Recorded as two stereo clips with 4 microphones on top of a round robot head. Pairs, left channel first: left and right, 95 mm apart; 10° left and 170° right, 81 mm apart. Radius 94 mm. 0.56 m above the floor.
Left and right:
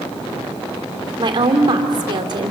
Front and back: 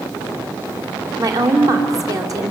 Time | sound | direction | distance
1.2 | a woman speaking | 125° right | 2.5 m